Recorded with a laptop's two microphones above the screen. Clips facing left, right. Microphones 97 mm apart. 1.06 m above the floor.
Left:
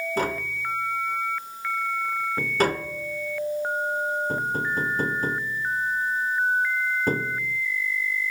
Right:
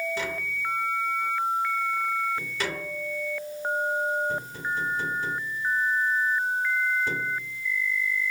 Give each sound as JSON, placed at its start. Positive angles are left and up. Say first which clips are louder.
{"t": 0.2, "sound": "tapping", "louder": "left 5 dB", "side_deg": 45, "distance_m": 1.5}